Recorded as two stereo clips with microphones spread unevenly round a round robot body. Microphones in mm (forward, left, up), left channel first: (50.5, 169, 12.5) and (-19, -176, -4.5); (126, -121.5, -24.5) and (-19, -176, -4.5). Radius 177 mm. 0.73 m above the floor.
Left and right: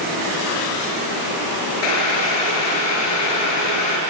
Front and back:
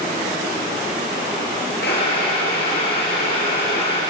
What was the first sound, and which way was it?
Boiling, 70° left.